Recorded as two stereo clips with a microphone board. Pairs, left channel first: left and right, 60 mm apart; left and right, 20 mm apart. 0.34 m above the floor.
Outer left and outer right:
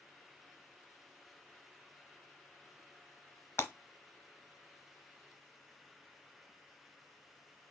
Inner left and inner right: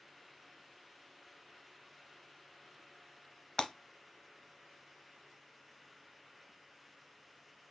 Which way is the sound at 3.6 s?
40° left (ahead or behind).